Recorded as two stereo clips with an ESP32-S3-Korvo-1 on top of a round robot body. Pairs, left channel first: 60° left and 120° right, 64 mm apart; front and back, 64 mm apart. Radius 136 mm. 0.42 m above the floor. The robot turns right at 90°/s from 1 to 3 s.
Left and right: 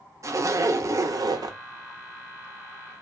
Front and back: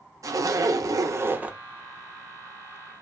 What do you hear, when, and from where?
0.2 s a zipper: 155° right, 0.6 m; by 1.6 s 100° right, 0.6 m